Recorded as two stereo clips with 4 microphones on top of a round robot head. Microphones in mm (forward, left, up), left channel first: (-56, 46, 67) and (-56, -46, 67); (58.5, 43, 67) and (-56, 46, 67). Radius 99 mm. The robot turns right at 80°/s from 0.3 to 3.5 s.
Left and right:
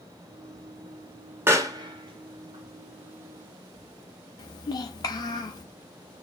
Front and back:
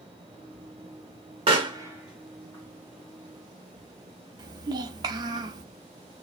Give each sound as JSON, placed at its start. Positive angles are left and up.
{"t": 1.5, "sound": "a pop", "azimuth_deg": -150, "distance_m": 1.2}
{"t": 4.4, "sound": "a child speaking", "azimuth_deg": 130, "distance_m": 0.6}